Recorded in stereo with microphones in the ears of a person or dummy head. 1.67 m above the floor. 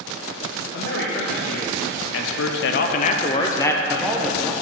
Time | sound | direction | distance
0.7 | a man speaking | 60° left (ahead or behind) | 1.5 m